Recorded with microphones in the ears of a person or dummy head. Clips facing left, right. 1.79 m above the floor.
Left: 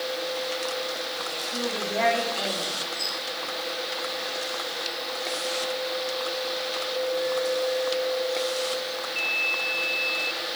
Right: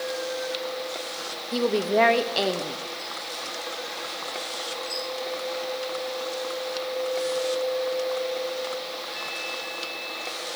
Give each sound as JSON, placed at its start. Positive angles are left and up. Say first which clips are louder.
{"t": 1.5, "sound": "a woman speaking", "louder": "right 8 dB", "side_deg": -60, "distance_m": 0.8}